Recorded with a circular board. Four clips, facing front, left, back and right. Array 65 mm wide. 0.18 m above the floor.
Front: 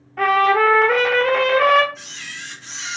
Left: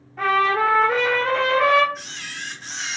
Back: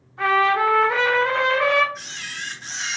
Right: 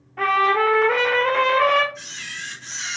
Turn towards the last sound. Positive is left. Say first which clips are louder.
# even, back 2 dB
turn(degrees=135)